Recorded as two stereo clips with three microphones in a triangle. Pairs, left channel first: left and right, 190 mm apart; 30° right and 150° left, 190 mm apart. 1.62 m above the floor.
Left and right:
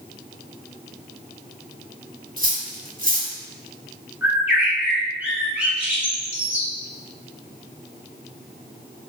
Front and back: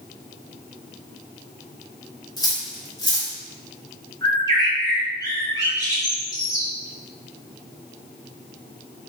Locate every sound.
2.4 s cutlery clinking: 90° right, 1.1 m
4.2 s a bird: 25° right, 1.2 m